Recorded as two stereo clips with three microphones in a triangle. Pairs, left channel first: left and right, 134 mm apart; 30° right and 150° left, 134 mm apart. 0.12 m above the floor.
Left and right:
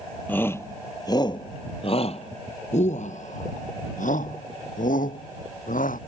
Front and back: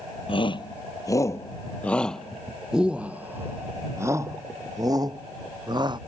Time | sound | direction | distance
0.3 | a shout | 15° left | ?